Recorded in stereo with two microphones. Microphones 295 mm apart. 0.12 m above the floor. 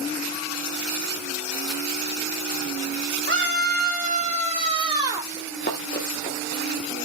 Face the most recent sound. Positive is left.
turn(degrees=20)  # may be behind; listen again after turning